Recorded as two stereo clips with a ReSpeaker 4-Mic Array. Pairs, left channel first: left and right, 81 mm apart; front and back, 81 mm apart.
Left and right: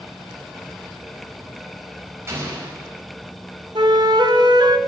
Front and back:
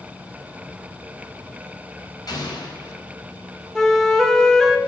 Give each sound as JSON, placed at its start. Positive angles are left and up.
{"t": 2.3, "sound": "an explosion", "azimuth_deg": -35, "distance_m": 4.5}
{"t": 3.8, "sound": "a flute", "azimuth_deg": -85, "distance_m": 1.4}